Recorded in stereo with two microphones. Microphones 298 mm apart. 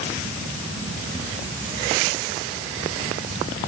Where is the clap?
No clap in this recording.